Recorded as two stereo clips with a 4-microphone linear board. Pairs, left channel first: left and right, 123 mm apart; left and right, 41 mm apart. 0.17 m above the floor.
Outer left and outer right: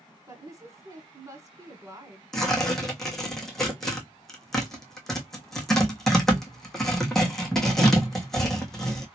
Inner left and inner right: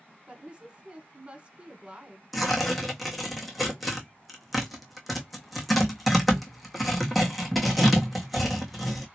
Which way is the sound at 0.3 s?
25° right (ahead or behind).